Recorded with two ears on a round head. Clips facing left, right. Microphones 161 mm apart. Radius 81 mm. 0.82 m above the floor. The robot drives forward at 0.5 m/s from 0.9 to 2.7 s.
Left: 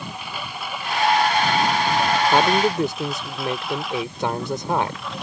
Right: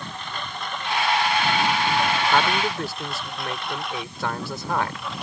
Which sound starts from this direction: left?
A man speaking, at 2.3 s.